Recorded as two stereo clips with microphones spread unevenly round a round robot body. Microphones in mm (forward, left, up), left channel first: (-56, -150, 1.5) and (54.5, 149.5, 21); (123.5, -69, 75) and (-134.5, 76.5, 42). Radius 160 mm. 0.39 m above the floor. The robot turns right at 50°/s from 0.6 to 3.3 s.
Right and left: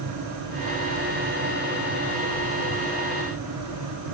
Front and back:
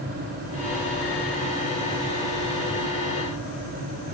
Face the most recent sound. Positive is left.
No sound to turn to.